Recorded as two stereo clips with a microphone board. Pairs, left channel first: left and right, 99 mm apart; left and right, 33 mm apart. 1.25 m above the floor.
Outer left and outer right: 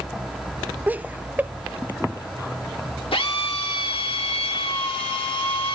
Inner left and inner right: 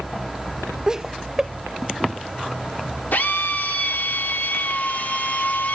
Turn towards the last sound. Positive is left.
turn(degrees=70)  # may be behind; listen again after turning